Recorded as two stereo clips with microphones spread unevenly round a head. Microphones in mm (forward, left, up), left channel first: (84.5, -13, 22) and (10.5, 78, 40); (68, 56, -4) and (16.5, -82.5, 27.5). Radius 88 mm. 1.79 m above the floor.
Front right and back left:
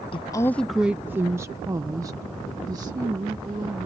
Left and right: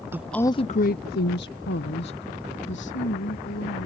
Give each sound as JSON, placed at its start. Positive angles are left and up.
{"t": 0.1, "sound": "a woman speaking", "azimuth_deg": -80}